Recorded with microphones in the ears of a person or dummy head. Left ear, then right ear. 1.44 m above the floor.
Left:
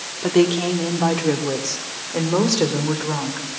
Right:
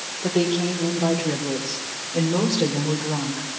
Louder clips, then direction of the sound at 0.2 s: Left 5 dB; 40° left (ahead or behind).